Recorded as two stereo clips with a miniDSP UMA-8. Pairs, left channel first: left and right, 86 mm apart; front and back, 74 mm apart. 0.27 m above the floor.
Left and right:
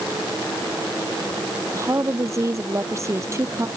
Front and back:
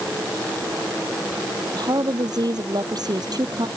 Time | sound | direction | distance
1.7 | a woman speaking | 145° right | ?